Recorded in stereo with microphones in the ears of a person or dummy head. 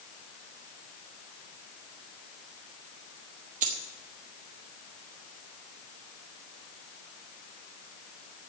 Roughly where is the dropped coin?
Right.